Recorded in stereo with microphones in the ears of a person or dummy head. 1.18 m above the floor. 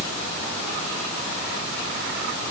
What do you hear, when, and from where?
Only background noise.